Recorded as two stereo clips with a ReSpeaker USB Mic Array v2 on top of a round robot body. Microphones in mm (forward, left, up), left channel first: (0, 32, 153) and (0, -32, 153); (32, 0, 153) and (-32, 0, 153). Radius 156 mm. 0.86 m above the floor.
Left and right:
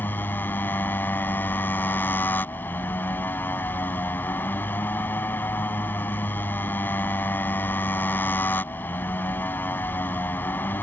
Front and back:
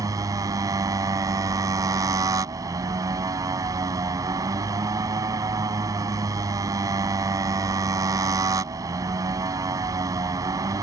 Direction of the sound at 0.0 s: 150° left.